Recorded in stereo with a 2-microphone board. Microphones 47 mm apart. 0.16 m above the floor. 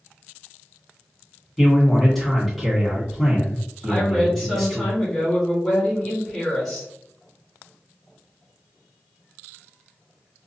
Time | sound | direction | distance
1.6 | a man speaking | 5° left (ahead or behind) | 1.7 m
3.8 | a woman speaking | 15° left (ahead or behind) | 1.4 m